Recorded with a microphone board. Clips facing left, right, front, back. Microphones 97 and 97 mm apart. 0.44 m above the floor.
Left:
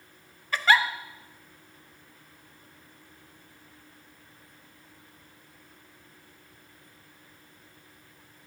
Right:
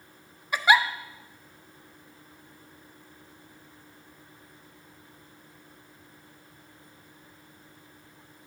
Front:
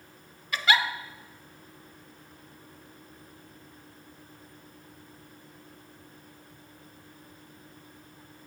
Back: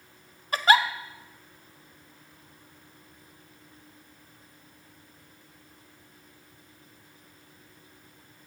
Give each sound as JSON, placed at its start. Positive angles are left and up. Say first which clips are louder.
{"t": 0.5, "sound": "a giggle", "louder": "right 1 dB, back 5 dB", "azimuth_deg": -160, "distance_m": 0.6}